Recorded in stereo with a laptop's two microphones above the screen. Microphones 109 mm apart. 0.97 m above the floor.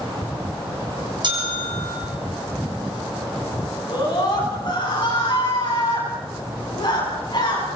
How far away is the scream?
About 9 m.